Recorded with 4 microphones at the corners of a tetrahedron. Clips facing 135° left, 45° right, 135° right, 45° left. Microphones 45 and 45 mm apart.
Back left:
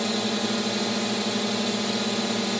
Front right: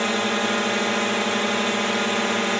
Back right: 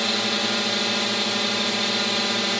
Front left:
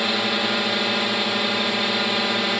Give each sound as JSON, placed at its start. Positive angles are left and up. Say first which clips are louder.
{"t": 0.0, "sound": "a drone", "louder": "front right 4 dB, front left 2 dB", "azimuth_deg": -30}